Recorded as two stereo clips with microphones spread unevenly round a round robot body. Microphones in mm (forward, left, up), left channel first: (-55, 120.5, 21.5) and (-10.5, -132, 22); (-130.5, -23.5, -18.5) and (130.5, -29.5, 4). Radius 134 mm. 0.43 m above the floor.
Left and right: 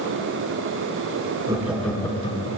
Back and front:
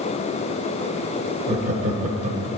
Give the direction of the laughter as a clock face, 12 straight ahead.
1 o'clock.